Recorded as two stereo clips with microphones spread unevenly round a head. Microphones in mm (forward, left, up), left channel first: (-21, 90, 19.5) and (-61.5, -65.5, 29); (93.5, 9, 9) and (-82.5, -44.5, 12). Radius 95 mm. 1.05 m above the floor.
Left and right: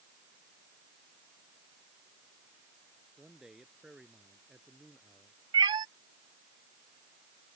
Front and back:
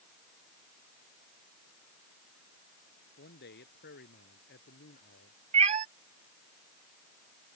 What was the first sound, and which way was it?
A man speaking, 15° right.